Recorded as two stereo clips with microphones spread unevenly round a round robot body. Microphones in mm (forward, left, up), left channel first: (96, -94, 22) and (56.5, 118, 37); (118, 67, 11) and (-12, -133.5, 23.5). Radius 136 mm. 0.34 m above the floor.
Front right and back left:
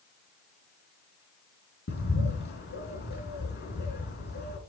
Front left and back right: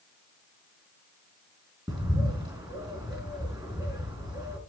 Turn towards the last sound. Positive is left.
turn(degrees=-50)